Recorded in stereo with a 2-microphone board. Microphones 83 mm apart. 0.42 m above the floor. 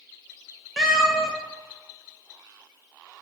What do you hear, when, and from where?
0.8 s a cat meowing: 5° right (ahead or behind), 0.5 m